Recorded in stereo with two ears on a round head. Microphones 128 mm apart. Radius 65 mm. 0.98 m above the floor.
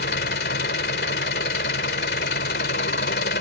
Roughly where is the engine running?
Left.